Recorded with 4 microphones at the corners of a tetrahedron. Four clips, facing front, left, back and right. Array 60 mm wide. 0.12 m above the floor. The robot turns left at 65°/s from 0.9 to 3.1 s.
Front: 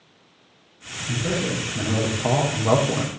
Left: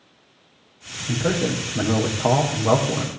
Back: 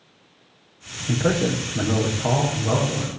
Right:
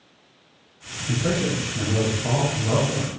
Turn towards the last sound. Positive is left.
turn(degrees=30)